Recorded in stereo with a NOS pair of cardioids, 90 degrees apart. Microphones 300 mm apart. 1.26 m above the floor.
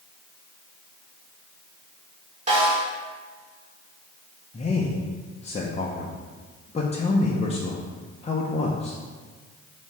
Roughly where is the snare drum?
Ahead right.